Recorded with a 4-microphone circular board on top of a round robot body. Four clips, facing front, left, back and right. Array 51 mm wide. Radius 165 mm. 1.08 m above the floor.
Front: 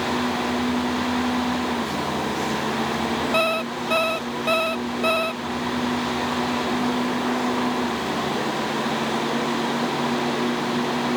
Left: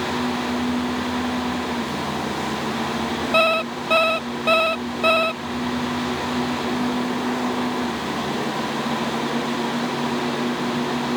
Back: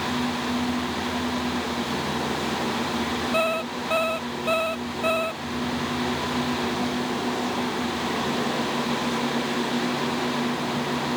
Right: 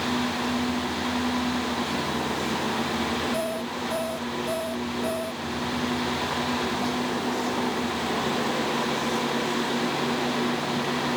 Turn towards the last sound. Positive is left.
turn(degrees=80)